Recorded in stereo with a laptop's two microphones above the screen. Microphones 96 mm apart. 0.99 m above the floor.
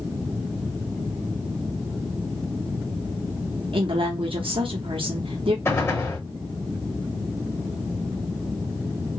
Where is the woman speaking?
65° right (ahead or behind), 0.7 m.